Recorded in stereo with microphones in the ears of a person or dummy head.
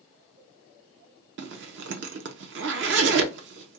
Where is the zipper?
50° right (ahead or behind), 0.6 m.